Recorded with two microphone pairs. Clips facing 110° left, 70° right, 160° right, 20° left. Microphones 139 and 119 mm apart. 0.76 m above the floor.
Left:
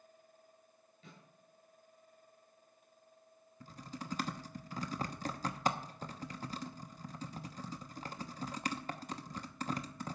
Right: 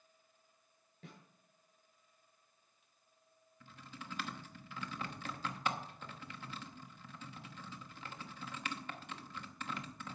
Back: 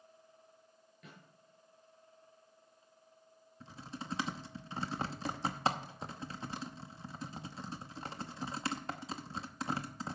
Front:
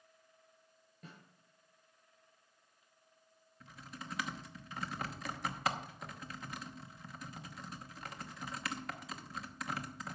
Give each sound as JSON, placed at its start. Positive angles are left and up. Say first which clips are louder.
{"t": 1.0, "sound": "a snare drum", "louder": "right 2 dB, front 1 dB", "azimuth_deg": -35, "distance_m": 5.5}
{"t": 3.6, "sound": "typing on a keyboard", "louder": "left 6 dB, back 4 dB", "azimuth_deg": 150, "distance_m": 0.9}